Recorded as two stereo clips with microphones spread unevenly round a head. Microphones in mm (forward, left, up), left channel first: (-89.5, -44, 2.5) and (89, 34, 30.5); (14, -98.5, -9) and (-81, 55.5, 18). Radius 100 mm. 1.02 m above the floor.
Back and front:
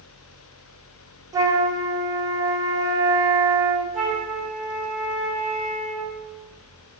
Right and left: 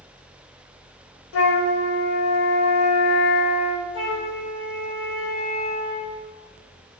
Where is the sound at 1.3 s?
50° right, 0.9 m.